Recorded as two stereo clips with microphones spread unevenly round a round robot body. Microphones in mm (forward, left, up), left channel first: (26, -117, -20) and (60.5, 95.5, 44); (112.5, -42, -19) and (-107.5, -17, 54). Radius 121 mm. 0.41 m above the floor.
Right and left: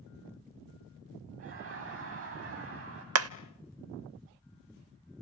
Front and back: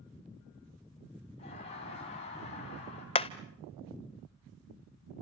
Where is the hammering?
55° left, 0.6 m.